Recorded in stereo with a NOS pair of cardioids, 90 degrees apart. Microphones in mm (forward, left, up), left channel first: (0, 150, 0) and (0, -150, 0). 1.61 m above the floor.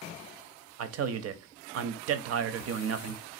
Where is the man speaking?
55° right, 0.6 m.